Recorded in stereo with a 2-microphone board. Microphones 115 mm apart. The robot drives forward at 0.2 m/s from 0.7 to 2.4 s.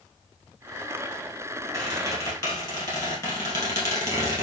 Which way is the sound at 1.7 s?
30° left (ahead or behind).